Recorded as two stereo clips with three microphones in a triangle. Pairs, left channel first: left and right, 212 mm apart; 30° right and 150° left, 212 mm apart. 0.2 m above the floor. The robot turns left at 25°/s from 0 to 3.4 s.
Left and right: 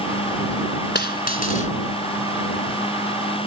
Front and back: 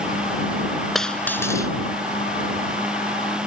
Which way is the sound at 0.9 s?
60° left.